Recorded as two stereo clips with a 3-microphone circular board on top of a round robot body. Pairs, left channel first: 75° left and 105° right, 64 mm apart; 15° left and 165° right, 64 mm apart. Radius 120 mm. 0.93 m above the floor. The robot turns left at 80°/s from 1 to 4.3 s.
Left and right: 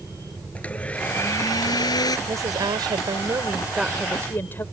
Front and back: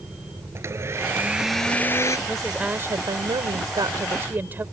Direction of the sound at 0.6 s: 145° left.